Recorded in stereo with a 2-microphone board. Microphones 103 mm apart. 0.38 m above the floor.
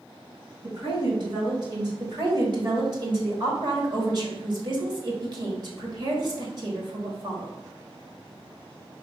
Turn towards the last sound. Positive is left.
turn(degrees=-45)  # may be behind; listen again after turning